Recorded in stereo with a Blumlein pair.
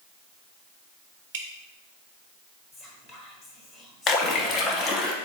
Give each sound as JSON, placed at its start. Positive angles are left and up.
{"t": 1.3, "sound": "dripping", "azimuth_deg": -55, "distance_m": 0.6}
{"t": 2.7, "sound": "whispering", "azimuth_deg": 20, "distance_m": 1.2}
{"t": 4.1, "sound": "a splash", "azimuth_deg": 25, "distance_m": 0.7}